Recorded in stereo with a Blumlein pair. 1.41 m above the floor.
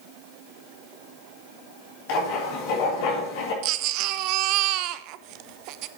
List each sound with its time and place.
2.1 s writing: 45° left, 4 m
3.6 s a baby crying: 40° right, 0.6 m